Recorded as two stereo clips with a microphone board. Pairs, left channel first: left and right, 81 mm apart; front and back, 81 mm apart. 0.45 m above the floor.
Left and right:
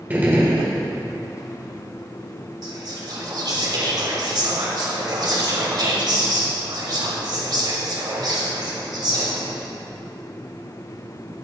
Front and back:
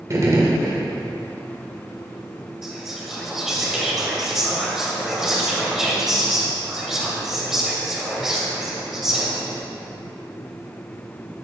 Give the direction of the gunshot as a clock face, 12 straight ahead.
5 o'clock.